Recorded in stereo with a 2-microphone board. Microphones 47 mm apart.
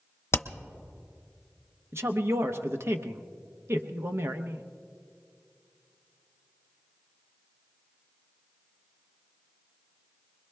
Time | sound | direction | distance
0.3 | hammering | 60° left (ahead or behind) | 0.8 m
1.9 | a woman speaking | 60° right (ahead or behind) | 0.8 m